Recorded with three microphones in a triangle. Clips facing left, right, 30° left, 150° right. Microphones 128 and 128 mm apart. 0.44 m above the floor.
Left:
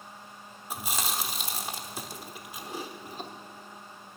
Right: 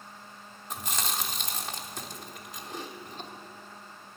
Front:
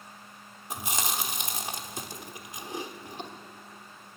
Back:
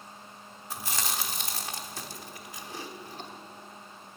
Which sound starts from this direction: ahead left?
Chewing, at 0.7 s.